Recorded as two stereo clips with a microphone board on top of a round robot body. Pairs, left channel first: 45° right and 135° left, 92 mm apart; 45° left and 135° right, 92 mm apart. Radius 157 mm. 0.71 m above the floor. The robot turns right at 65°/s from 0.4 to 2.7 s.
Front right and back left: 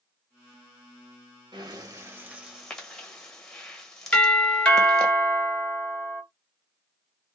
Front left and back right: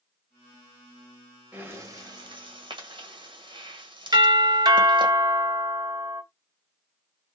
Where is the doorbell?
120° right, 2 m.